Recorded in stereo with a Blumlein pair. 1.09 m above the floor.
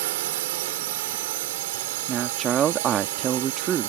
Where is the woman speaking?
25° right.